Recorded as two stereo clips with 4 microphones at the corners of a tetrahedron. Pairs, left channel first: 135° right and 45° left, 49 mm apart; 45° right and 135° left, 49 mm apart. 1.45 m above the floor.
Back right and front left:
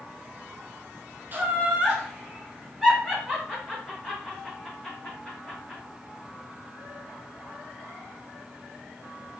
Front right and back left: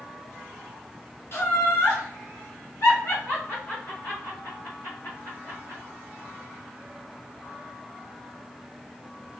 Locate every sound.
1.3 s laughter: 10° right, 0.8 m; by 5.8 s 60° right, 3 m